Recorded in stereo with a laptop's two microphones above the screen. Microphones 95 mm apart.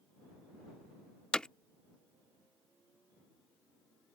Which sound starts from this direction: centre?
Hammering, at 1.3 s.